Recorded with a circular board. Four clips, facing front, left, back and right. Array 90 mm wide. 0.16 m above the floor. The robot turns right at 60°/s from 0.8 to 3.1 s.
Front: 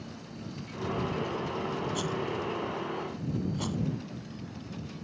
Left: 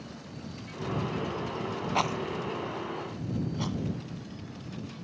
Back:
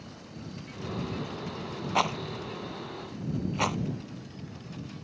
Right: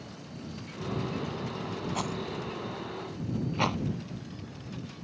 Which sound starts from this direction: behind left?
A rattle, at 1.9 s.